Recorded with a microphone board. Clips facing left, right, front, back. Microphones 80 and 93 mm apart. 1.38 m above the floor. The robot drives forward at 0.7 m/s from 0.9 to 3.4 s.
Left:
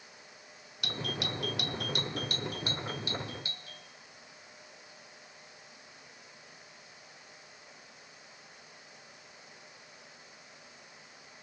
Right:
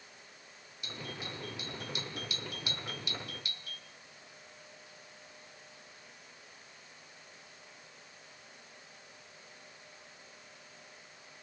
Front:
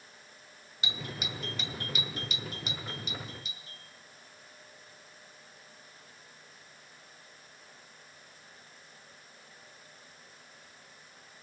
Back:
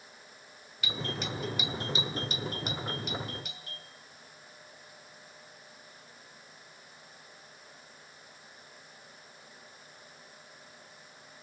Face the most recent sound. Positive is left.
turn(degrees=150)